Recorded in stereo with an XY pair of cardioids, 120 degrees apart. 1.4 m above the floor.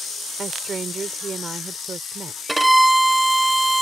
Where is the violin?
5° right.